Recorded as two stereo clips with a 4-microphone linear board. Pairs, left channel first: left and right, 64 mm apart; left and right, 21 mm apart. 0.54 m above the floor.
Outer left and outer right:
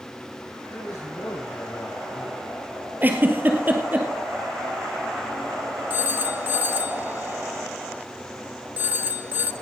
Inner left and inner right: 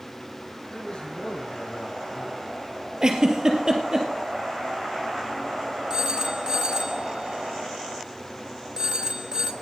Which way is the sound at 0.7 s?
60° left (ahead or behind).